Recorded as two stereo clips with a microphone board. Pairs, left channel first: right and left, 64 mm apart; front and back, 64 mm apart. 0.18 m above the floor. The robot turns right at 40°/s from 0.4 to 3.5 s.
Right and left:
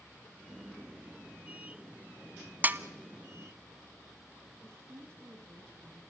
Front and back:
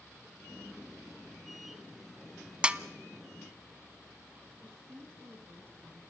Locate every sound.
2.6 s a snare drum: 120° left, 0.7 m; by 2.8 s 125° left, 0.7 m
4.6 s a woman speaking: 135° left, 3.5 m